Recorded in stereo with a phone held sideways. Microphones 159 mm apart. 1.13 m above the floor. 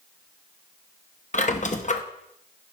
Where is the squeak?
50° left (ahead or behind), 0.7 m.